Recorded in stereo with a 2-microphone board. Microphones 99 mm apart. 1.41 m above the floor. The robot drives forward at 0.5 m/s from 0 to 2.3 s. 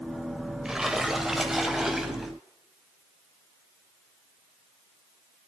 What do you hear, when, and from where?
0.7 s a splash: 5° right (ahead or behind), 1.0 m